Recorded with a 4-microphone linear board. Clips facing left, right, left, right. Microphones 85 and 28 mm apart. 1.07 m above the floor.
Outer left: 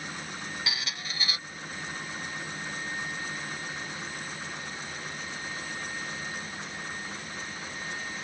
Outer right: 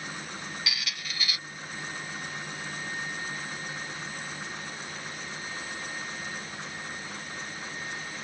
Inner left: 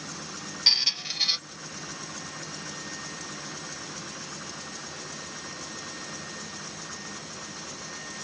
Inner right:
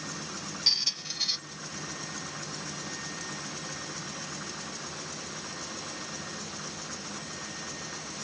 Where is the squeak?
35° left (ahead or behind).